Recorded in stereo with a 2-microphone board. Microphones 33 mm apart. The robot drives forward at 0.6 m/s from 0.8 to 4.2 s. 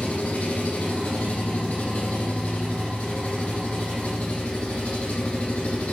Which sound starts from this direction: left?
An engine running, at 0.0 s.